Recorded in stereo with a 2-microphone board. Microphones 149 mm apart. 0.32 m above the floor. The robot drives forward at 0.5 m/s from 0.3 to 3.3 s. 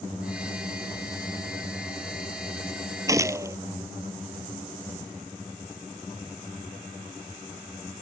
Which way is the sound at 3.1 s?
20° right (ahead or behind).